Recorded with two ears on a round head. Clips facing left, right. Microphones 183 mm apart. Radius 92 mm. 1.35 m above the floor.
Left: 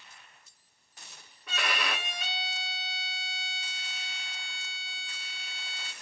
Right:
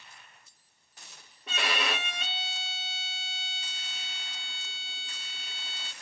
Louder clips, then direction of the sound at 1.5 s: Right 2 dB; 20° right (ahead or behind).